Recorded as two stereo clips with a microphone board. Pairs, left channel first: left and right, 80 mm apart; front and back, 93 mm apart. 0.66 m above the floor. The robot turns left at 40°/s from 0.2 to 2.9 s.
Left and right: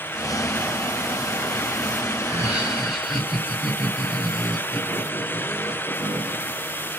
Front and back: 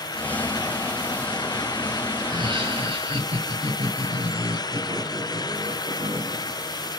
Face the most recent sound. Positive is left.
turn(degrees=-175)